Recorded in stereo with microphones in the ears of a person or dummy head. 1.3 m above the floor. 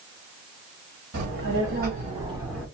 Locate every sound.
1.1 s a child speaking: 55° right (ahead or behind), 1.6 m; by 2.7 s 5° left (ahead or behind), 0.7 m